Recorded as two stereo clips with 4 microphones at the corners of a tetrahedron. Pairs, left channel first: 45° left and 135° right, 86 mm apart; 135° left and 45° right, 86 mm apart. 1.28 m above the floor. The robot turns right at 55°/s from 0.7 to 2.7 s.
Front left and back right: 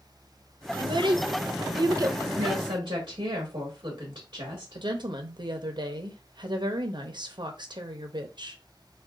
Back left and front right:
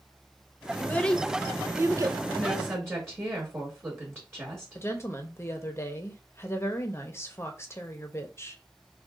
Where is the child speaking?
165° right, 0.6 m; by 2.2 s 85° right, 0.6 m.